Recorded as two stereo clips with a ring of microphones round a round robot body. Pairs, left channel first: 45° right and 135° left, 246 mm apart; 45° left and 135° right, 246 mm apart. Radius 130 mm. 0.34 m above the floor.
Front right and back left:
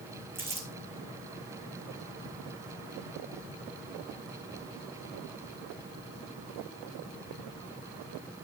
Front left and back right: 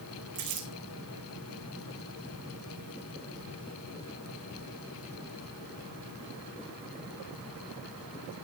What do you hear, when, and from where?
0.3 s crumpling: 145° right, 4.5 m